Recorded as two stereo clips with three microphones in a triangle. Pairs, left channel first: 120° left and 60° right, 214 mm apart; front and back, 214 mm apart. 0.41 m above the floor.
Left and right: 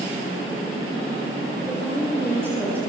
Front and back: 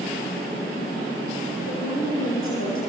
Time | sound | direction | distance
1.7 | a woman speaking | 20° left | 7 m